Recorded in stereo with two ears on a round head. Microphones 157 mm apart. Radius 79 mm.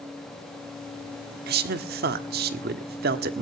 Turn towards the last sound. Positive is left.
turn(degrees=-55)  # may be behind; listen again after turning